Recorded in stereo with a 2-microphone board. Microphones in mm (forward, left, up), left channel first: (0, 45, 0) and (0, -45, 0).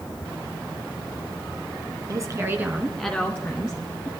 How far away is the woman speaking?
About 1.5 m.